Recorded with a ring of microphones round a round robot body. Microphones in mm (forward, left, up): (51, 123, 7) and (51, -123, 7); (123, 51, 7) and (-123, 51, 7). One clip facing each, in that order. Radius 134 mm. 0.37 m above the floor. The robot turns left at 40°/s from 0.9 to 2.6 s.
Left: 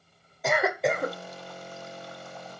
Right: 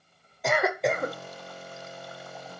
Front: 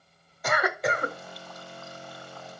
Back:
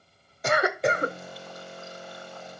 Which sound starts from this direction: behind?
A cough, at 0.4 s.